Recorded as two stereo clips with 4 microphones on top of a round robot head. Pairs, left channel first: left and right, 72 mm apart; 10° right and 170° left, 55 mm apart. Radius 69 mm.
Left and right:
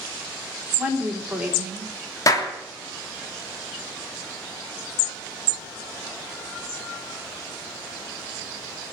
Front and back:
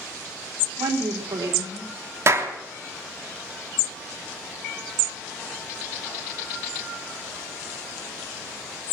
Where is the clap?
130° left, 2.5 m.